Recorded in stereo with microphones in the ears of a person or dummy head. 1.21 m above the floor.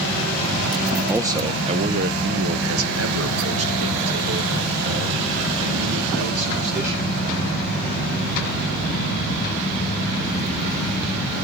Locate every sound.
1.1 s a man speaking: 10° right (ahead or behind), 0.8 m; by 7.1 s 65° right (ahead or behind), 3 m